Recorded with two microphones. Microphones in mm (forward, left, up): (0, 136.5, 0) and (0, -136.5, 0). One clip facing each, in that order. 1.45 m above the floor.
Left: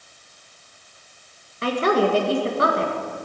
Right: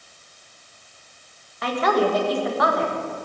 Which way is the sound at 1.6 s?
30° left (ahead or behind).